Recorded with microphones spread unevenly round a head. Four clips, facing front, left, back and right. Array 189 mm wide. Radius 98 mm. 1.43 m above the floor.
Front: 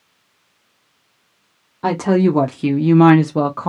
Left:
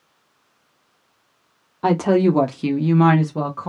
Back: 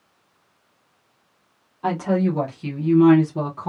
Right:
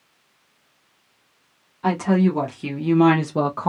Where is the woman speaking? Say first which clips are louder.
Left 3 dB, front 6 dB; 55° left, 0.8 m; by 3.7 s 35° right, 0.7 m.